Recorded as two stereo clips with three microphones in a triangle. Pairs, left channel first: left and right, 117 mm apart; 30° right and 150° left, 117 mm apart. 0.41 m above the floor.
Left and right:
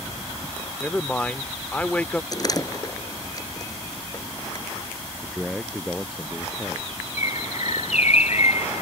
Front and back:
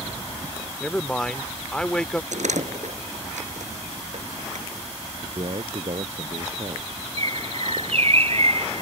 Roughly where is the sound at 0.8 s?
Ahead left.